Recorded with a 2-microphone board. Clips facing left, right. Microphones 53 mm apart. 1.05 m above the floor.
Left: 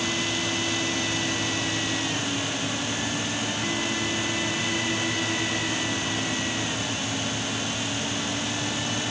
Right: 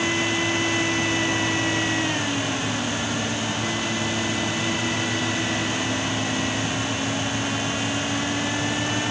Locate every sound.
Only background noise.